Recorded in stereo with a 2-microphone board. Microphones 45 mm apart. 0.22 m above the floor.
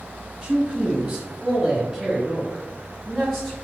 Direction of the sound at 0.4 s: 15° right (ahead or behind).